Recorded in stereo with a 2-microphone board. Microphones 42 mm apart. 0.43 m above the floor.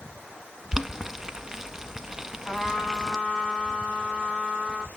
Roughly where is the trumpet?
Centre.